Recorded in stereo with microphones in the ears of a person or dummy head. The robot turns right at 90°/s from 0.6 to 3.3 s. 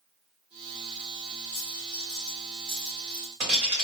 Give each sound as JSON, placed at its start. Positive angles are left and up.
{"t": 1.5, "sound": "a dropped coin", "side_deg": 45, "distance_m": 1.7}